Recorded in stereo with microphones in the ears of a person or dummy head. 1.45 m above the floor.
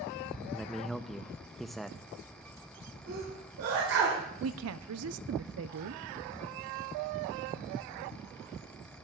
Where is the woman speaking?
75° right (ahead or behind), 0.8 m.